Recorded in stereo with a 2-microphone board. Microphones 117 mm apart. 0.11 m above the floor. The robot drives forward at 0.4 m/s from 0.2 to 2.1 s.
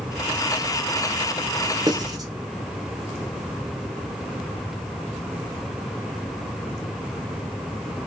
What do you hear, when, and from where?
1.9 s writing: 35° right (ahead or behind), 0.7 m